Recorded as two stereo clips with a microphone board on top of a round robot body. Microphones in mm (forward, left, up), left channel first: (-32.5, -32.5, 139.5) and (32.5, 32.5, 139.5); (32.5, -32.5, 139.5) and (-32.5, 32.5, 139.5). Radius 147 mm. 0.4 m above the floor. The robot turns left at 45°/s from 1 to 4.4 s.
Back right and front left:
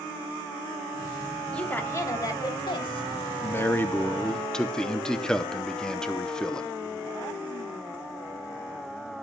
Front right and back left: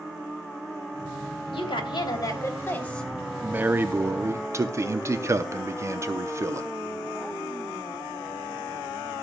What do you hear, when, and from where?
1.5 s a woman speaking: 55° right, 3 m; by 3.1 s 130° right, 3 m
3.4 s a man speaking: 165° right, 1.0 m; by 6.7 s 150° left, 1.0 m